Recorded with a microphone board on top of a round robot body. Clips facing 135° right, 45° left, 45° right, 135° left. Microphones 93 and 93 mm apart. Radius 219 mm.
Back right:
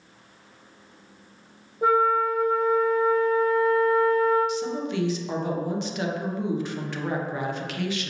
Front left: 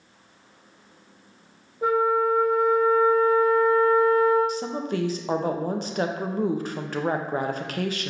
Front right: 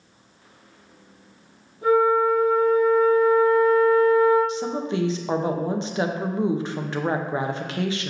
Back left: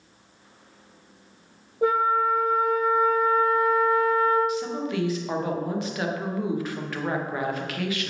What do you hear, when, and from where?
1.8 s a flute: 145° left, 0.6 m
4.5 s a woman speaking: 10° left, 0.7 m